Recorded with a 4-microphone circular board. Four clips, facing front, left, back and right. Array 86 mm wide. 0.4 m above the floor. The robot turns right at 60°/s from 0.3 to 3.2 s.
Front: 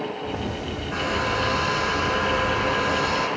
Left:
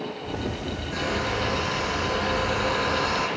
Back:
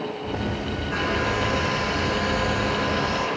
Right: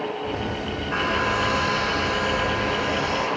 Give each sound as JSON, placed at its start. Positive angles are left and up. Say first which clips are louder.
{"t": 0.9, "sound": "a hair dryer", "louder": "right 4 dB, even", "azimuth_deg": -90, "distance_m": 4.0}